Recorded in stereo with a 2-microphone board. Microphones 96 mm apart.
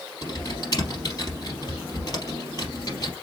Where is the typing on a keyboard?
40° left (ahead or behind), 3.5 m.